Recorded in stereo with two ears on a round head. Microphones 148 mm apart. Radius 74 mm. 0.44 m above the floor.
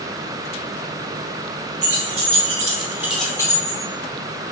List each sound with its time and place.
1.8 s keys jangling: 65° right (ahead or behind), 1.8 m; by 3.8 s 35° left (ahead or behind), 1.4 m